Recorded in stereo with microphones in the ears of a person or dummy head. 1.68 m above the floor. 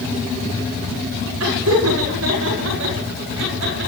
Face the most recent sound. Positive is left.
turn(degrees=-65)  # may be behind; listen again after turning